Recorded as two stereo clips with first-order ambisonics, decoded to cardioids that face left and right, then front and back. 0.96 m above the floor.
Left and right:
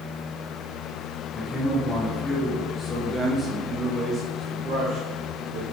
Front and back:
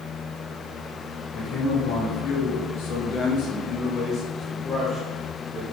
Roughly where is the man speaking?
Ahead.